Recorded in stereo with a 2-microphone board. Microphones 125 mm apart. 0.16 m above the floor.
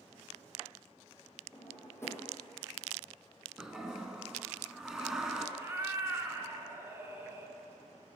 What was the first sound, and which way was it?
A drawer, 20° left (ahead or behind).